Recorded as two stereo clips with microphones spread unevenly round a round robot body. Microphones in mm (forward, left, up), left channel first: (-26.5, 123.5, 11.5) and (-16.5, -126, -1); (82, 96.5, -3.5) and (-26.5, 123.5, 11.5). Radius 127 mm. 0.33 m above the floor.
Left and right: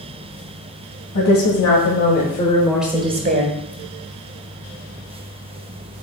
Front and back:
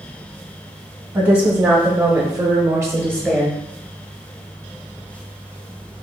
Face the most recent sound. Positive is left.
turn(degrees=-100)